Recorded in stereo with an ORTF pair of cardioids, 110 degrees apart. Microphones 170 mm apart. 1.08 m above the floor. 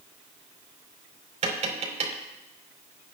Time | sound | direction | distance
1.4 | tapping | 40° right | 3.5 m